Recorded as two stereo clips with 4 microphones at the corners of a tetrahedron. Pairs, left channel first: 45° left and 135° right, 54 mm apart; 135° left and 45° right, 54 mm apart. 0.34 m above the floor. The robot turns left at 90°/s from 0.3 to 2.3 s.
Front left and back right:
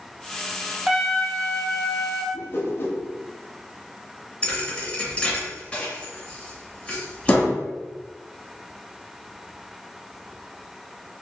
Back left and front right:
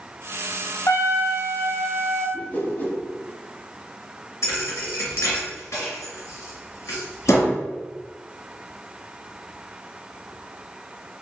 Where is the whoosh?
85° left, 0.9 m.